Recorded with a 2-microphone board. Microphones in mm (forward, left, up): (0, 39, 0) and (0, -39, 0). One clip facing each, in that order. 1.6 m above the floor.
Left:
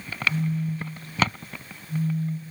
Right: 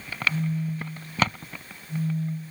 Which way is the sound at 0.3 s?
5° right (ahead or behind).